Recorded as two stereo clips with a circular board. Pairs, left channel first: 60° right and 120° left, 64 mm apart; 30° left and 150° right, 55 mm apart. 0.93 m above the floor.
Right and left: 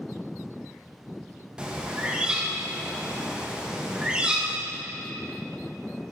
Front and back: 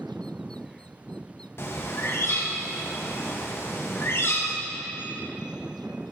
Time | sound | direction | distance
1.6 | a bird | 50° left | 0.7 m